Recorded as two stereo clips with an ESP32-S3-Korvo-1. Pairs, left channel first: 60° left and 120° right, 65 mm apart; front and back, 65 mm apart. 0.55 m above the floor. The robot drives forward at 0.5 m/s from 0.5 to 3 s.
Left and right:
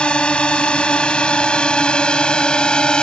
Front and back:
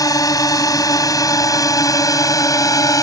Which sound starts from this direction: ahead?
A drone, at 0.0 s.